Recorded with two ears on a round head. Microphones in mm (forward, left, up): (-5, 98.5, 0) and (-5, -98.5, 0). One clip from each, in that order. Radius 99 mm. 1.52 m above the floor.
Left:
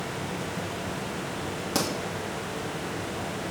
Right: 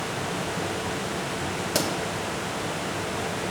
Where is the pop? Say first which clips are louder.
Right 2 dB; 10° right (ahead or behind), 1.3 m.